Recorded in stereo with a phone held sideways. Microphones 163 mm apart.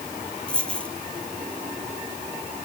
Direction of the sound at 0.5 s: 5° left (ahead or behind).